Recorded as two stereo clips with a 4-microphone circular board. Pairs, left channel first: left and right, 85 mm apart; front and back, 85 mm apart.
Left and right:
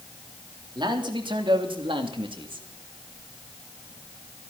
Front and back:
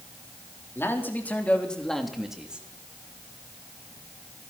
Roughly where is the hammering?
I don't hear hammering.